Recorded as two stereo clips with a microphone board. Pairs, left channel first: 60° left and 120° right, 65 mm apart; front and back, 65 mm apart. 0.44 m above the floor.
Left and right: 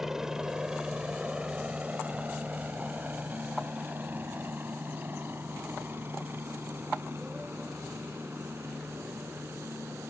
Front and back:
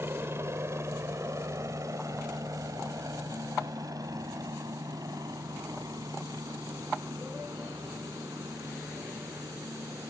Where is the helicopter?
155° left; by 10.1 s 170° right.